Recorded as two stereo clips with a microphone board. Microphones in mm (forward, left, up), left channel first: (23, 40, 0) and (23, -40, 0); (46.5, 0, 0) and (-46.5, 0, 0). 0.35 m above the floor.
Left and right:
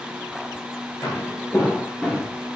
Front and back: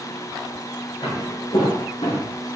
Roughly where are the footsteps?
Ahead left.